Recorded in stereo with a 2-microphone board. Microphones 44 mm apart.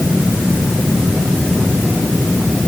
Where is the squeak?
No squeak in this recording.